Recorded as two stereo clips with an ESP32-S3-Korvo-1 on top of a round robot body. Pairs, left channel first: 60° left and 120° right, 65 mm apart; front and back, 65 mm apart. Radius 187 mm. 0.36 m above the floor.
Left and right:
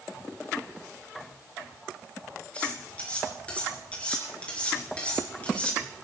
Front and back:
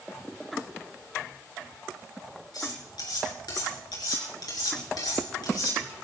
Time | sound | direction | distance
2.5 | cutlery clinking | 15° right | 6 m